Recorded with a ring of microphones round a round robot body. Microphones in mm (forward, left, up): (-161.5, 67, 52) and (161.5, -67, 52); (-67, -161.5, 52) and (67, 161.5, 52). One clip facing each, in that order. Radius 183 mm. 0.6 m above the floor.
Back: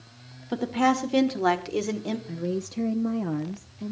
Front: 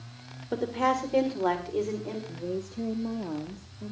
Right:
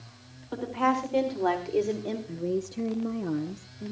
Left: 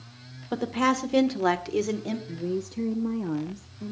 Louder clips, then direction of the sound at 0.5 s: Back 4 dB, left 3 dB; 90° left.